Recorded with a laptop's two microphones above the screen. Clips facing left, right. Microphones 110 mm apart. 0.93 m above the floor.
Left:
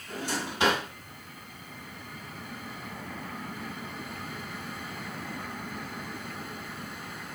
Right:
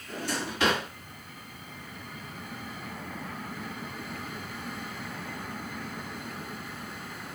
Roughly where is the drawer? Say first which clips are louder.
Even; left.